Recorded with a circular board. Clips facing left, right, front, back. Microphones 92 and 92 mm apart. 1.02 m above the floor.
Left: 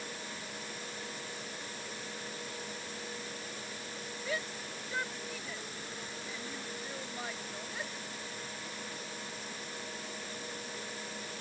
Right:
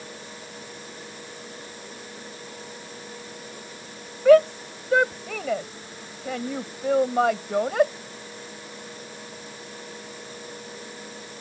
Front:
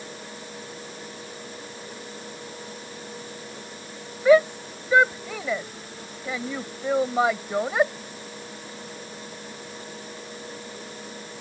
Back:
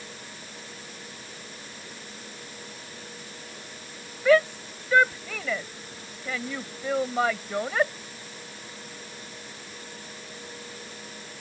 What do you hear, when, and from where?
4.2 s a shout: 75° right